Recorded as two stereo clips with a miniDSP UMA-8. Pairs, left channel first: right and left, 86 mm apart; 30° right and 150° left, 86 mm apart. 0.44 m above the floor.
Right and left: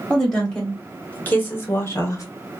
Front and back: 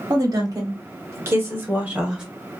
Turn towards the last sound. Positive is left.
turn(degrees=-130)